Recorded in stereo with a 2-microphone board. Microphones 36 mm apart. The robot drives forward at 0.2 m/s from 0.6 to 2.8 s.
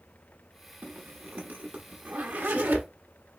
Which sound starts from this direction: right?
A zipper, at 0.8 s.